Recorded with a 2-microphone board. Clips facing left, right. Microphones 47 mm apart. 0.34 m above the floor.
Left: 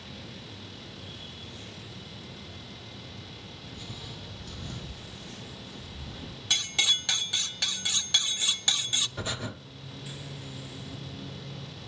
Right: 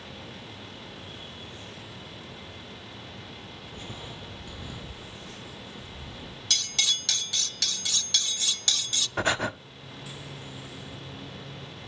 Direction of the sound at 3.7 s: 45° right (ahead or behind).